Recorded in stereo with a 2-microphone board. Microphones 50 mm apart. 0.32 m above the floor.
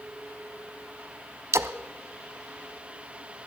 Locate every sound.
1.5 s a splash: 70° right (ahead or behind), 0.9 m